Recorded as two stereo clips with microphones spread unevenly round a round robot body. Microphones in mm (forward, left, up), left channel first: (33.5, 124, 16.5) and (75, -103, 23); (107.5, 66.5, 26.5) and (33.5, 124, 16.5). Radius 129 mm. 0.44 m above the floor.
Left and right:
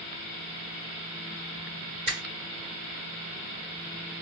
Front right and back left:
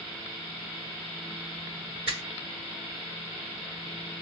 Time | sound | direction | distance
2.1 | a finger snap | 140° right | 1.6 m